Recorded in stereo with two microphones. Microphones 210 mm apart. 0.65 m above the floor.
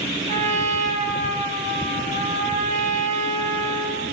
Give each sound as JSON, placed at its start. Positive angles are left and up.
{"t": 0.3, "sound": "a trumpet", "side_deg": -35, "distance_m": 8.5}